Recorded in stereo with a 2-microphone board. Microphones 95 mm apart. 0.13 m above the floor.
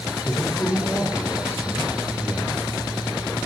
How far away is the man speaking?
About 1.3 m.